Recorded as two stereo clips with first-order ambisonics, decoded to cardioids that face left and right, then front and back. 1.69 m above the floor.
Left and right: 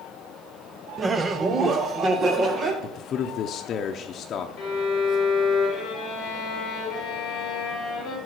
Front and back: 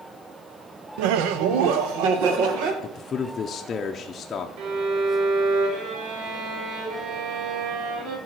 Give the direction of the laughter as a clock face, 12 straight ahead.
6 o'clock.